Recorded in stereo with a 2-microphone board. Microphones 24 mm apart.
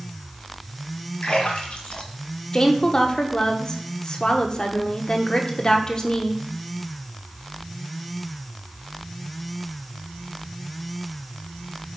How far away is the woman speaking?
About 0.9 m.